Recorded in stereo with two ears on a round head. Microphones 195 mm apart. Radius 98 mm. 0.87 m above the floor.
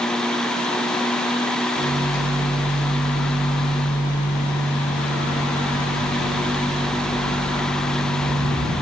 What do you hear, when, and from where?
1.8 s a microwave: 60° left (ahead or behind), 2.5 m